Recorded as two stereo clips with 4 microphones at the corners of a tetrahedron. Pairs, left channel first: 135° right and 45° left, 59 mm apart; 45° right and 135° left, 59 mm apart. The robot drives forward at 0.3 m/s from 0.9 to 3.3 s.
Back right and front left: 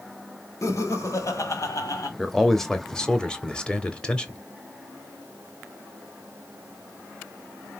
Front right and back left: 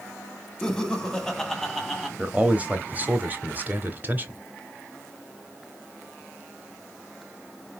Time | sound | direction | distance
0.6 | laughter | 120° right | 1.6 m
2.2 | a man speaking | 135° left | 0.9 m